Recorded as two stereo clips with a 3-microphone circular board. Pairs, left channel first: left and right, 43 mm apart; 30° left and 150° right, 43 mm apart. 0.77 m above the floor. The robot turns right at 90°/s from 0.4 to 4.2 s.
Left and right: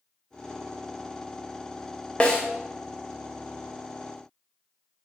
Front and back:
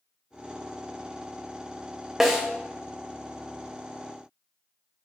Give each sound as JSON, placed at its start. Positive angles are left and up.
{"t": 2.2, "sound": "a snare drum", "azimuth_deg": 130, "distance_m": 0.7}